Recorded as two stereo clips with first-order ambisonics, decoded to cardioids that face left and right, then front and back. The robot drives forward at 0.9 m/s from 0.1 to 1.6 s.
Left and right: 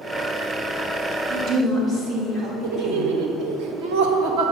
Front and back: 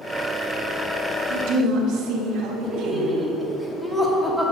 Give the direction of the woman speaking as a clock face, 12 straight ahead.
5 o'clock.